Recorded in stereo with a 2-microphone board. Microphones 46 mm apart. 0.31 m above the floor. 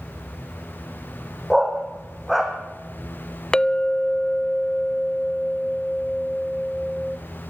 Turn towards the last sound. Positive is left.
turn(degrees=20)  # may be behind; listen again after turning